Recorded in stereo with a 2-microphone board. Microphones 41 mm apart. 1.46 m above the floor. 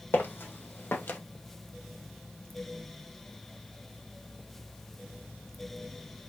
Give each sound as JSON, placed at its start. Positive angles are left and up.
{"t": 0.1, "sound": "footsteps", "side_deg": 50, "distance_m": 3.5}